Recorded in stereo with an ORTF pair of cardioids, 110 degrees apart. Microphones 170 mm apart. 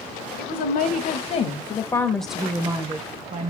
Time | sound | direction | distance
0.4 | a woman speaking | 65° left | 1.3 m